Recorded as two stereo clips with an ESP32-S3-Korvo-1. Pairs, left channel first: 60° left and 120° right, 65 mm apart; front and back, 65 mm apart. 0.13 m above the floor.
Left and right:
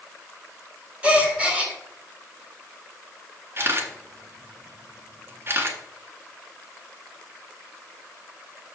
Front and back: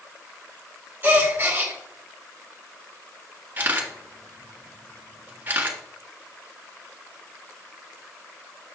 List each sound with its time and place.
1.0 s a gasp: 175° right, 1.9 m
3.6 s a camera shutter: 140° right, 1.6 m